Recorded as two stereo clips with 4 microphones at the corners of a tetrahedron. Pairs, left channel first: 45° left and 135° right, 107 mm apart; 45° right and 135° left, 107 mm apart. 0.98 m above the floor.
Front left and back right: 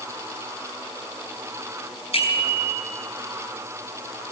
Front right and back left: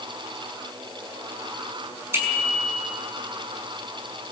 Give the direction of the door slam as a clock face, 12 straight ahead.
I don't hear a door slam.